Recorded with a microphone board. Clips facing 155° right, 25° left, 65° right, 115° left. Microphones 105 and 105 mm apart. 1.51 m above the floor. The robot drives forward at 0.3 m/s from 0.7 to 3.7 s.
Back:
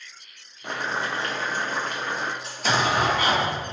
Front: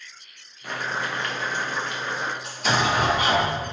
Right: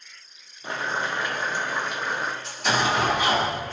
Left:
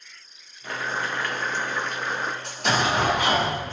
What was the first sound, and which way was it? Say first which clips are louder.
Boiling: back 1 dB, right 1 dB; 115° right.